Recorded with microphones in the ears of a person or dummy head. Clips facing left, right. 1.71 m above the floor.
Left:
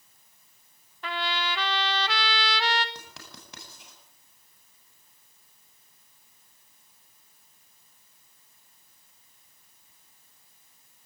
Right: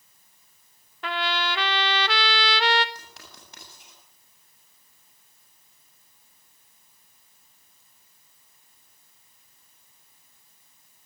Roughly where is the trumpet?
Right.